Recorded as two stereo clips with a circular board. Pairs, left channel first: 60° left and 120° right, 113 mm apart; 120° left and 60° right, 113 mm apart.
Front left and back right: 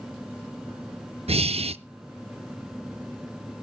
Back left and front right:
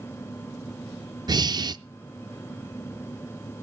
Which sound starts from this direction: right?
Breathing, at 1.3 s.